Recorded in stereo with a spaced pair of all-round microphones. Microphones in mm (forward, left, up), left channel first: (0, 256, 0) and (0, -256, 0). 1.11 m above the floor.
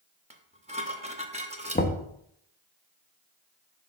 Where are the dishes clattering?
15° right (ahead or behind), 0.8 m.